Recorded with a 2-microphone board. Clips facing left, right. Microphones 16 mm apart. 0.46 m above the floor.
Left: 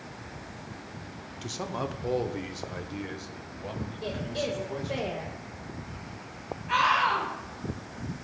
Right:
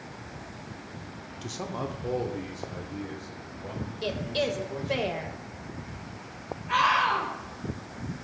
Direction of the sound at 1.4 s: 5° left (ahead or behind).